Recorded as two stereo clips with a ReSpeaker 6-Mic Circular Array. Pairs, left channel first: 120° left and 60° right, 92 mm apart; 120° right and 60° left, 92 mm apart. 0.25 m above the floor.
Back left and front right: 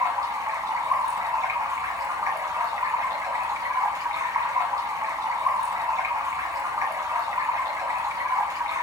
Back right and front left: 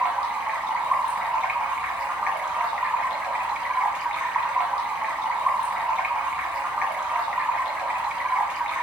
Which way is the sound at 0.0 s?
20° right.